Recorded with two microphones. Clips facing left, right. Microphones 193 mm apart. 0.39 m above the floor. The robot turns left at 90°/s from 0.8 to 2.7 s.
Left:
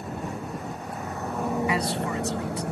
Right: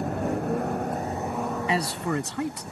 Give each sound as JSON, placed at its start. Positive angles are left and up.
{"t": 0.0, "sound": "a vehicle", "azimuth_deg": -125}
{"t": 1.7, "sound": "a man speaking", "azimuth_deg": -25}